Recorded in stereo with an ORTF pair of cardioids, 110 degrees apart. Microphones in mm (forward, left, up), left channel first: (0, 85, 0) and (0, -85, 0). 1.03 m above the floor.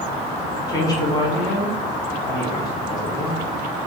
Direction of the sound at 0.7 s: 25° left.